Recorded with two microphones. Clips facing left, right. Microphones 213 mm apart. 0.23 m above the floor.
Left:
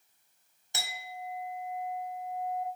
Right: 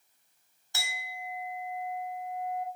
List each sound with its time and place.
0.7 s a clink: 20° left (ahead or behind), 0.7 m